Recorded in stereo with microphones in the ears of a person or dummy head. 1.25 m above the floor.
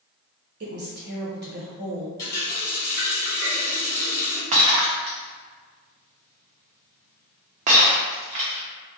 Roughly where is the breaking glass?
Right.